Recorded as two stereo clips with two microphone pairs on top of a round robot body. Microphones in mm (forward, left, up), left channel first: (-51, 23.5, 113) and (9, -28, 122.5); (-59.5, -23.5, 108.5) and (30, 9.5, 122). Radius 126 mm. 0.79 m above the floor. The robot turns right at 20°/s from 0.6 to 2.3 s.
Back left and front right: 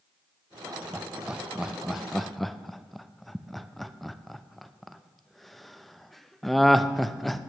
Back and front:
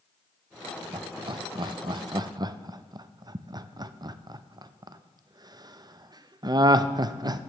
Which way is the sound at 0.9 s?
30° left.